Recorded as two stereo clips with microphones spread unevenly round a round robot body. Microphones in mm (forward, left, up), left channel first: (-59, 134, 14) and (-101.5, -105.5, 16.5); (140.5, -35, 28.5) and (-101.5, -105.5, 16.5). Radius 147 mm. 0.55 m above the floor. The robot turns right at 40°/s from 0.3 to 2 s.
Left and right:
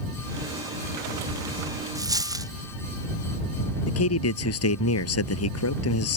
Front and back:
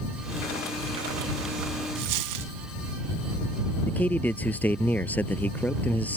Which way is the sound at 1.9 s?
Straight behind.